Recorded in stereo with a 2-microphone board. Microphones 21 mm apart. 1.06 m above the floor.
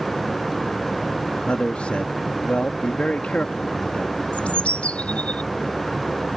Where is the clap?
No clap in this recording.